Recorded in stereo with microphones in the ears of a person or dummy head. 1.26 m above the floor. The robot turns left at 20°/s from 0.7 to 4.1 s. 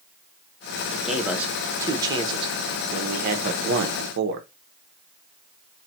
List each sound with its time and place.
0.9 s a man speaking: straight ahead, 0.9 m; by 4.5 s 65° right, 0.9 m